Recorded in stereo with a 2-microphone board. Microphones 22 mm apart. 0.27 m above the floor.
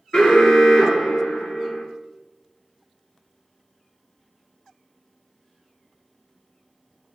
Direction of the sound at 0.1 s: 35° left (ahead or behind).